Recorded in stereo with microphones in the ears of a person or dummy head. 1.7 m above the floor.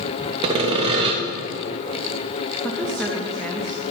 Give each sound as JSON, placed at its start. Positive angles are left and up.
{"t": 0.4, "sound": "sawing", "side_deg": -35, "distance_m": 0.6}
{"t": 2.6, "sound": "a woman speaking", "side_deg": 0, "distance_m": 0.7}